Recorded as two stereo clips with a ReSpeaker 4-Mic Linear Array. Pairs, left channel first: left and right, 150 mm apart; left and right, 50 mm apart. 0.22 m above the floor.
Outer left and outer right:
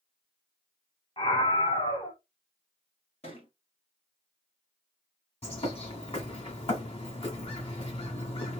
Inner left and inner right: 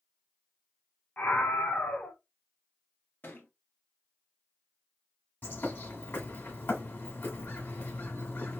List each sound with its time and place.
1.2 s a scream: 40° left (ahead or behind), 1.7 m
3.2 s a thud: 45° left (ahead or behind), 1.7 m
5.4 s a bird: 45° left (ahead or behind), 1.7 m